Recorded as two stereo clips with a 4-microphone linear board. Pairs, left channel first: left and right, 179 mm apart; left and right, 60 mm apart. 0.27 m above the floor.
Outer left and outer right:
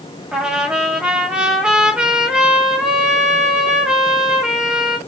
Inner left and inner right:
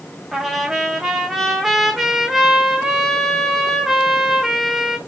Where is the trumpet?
5° right (ahead or behind), 1.7 m.